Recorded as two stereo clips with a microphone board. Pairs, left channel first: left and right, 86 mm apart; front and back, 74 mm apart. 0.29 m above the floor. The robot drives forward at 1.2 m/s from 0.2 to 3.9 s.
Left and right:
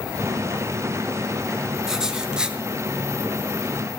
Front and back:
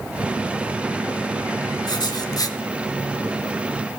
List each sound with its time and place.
1.9 s writing: 5° right, 1.9 m; by 2.6 s 15° right, 1.1 m